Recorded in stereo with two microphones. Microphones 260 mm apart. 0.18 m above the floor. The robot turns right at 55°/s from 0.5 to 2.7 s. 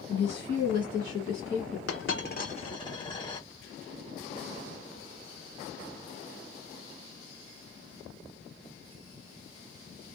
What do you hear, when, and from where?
0.1 s a woman speaking: 110° left, 1.6 m; by 1.8 s straight behind, 1.6 m
1.9 s a dropped coin: 60° left (ahead or behind), 1.0 m; by 3.5 s 15° left (ahead or behind), 1.0 m